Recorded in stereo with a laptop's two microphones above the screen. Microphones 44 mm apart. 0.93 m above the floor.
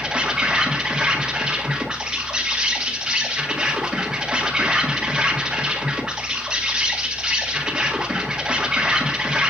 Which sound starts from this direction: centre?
An insect, at 0.0 s.